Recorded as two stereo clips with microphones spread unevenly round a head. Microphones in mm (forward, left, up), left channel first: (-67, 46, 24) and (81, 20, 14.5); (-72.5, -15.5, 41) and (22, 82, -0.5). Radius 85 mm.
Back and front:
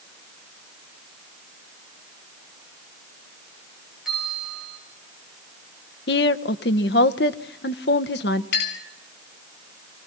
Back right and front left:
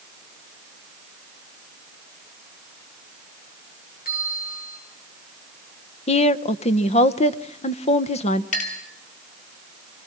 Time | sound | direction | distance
4.0 | a bell | 95° right | 6.5 m
6.1 | a woman speaking | 165° right | 0.9 m
8.5 | a clink | 160° right | 6 m